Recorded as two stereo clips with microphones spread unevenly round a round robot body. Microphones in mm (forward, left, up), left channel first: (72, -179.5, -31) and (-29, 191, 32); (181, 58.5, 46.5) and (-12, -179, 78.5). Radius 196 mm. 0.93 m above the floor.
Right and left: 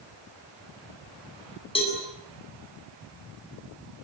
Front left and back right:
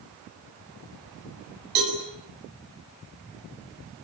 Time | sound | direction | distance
1.8 | a cowbell | 150° right | 8 m